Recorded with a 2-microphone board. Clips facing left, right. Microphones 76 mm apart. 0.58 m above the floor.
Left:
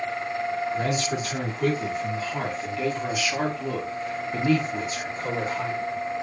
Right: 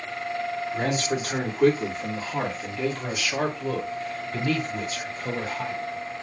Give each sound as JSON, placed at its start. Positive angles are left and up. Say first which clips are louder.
{"t": 0.7, "sound": "a man speaking", "louder": "even", "side_deg": -45, "distance_m": 1.6}